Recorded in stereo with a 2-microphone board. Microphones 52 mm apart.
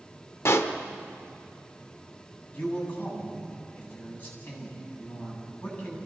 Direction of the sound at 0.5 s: 60° left (ahead or behind).